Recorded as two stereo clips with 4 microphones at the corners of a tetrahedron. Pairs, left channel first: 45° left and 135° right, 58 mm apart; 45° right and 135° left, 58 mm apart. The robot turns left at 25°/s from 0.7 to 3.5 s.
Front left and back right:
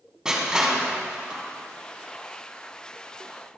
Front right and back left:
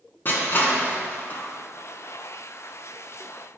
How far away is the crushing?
About 2 m.